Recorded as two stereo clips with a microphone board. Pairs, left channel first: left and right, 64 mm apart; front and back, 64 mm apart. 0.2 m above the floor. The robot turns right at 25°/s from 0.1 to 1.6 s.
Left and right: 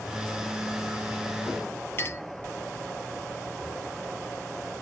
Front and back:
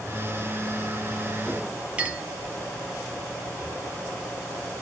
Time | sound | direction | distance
2.0 | a clink | 125° left | 1.1 m